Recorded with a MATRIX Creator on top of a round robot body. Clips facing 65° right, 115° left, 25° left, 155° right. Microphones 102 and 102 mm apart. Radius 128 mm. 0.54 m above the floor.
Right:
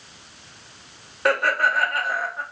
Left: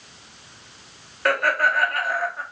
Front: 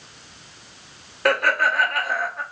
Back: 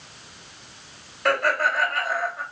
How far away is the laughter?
About 2 m.